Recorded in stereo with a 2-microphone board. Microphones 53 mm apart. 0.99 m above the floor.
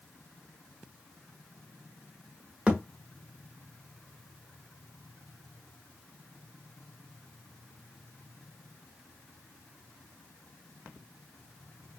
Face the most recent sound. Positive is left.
turn(degrees=-20)  # may be behind; listen again after turning